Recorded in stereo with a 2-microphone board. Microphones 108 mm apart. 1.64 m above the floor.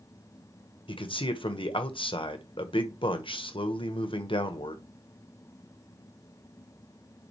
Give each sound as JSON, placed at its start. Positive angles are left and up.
{"t": 0.9, "sound": "a man speaking", "side_deg": 55, "distance_m": 1.1}